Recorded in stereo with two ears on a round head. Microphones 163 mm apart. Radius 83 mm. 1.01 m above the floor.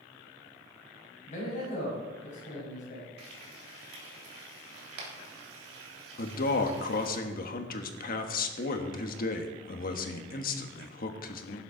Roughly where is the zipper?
No zipper in this recording.